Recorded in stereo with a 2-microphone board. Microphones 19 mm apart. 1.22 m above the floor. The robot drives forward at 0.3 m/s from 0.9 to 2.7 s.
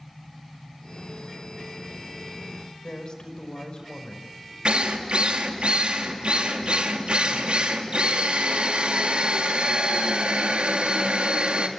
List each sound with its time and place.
2.8 s a woman speaking: 45° left (ahead or behind), 5 m
4.7 s a drill: 75° right (ahead or behind), 2.5 m